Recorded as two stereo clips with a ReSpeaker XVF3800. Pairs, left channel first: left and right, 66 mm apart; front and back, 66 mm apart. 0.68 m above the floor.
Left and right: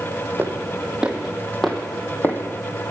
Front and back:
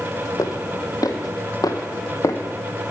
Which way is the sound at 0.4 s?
30° right.